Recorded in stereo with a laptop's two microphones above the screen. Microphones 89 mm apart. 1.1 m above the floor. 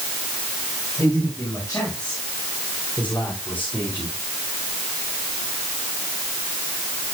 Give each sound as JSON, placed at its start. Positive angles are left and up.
{"t": 1.0, "sound": "a man speaking", "side_deg": 25, "distance_m": 7.5}